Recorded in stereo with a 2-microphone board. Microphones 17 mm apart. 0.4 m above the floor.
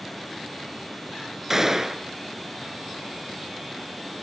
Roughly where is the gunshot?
Centre.